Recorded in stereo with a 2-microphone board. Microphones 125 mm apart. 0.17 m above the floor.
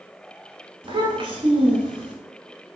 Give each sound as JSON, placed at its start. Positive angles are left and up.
{"t": 0.8, "sound": "a child speaking", "side_deg": -45, "distance_m": 0.9}